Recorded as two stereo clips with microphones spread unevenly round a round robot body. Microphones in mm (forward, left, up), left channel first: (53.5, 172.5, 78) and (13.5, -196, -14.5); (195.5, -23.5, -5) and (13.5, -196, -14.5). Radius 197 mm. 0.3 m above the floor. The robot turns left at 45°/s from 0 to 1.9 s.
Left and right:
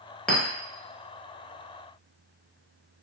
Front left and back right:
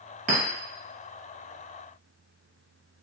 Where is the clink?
175° right, 0.7 m; by 0.4 s straight behind, 0.7 m.